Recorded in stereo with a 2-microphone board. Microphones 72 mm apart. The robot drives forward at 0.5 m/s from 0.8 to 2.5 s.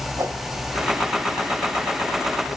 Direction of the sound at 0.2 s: 40° right (ahead or behind).